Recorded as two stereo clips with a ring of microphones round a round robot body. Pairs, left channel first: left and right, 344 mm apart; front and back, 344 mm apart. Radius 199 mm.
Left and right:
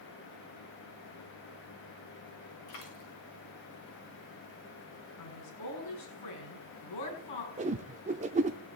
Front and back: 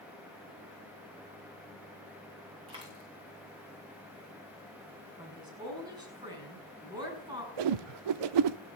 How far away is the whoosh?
About 0.6 m.